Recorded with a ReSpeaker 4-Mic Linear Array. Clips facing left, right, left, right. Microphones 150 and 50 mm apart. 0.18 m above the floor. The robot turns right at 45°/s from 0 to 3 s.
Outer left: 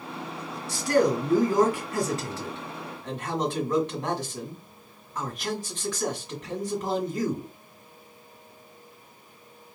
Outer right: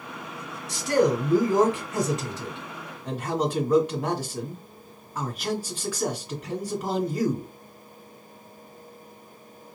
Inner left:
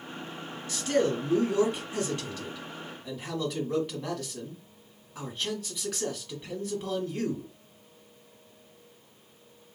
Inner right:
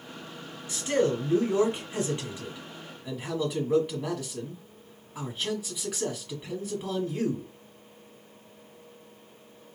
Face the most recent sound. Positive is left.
turn(degrees=-10)  # may be behind; listen again after turning